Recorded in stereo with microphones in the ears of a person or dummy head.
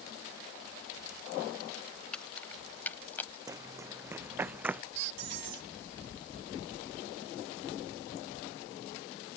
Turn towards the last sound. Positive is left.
turn(degrees=-70)  # may be behind; listen again after turning